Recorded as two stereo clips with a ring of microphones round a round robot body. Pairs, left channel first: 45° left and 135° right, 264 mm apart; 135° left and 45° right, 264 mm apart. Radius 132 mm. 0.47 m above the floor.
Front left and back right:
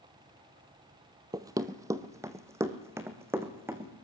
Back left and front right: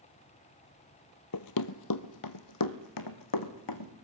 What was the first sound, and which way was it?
Running footsteps, 150° left.